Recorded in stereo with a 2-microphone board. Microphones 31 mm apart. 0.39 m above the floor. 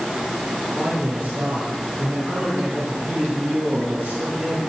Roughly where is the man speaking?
Right.